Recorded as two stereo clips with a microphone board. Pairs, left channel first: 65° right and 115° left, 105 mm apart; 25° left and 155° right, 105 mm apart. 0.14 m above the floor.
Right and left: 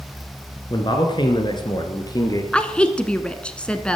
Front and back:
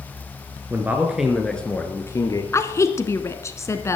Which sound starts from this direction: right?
A man speaking, at 0.7 s.